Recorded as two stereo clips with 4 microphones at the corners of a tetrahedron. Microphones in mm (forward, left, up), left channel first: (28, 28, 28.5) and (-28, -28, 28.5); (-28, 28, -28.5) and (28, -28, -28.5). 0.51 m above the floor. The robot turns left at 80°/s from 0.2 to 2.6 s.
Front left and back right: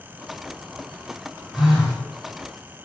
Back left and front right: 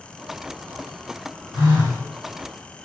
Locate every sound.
1.5 s a phone buzzing: 55° right, 1.3 m; by 2.0 s 90° right, 1.3 m